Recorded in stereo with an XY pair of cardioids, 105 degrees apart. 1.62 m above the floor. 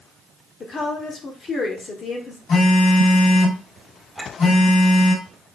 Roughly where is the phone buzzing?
Ahead left.